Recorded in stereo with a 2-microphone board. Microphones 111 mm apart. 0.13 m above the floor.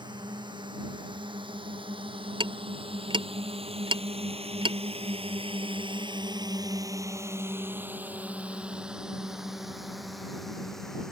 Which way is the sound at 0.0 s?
45° right (ahead or behind).